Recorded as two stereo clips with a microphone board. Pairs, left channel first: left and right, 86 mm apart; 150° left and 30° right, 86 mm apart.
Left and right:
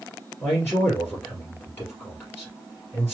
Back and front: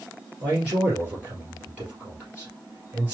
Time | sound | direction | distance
0.4 | a man speaking | 35° left | 2 m